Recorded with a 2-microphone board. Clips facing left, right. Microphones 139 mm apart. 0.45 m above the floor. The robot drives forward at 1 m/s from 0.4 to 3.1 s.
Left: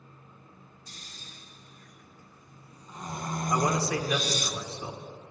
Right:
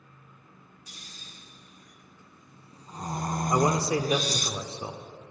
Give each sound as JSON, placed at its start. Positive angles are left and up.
{"t": 0.9, "sound": "snoring", "side_deg": -15, "distance_m": 3.0}
{"t": 3.5, "sound": "a man speaking", "side_deg": -30, "distance_m": 0.9}